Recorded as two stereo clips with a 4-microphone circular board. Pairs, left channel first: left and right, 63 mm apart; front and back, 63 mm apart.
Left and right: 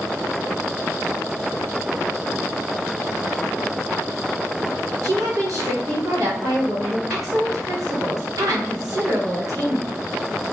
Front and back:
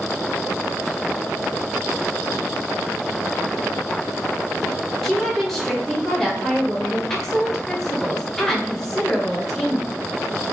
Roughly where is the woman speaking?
Right.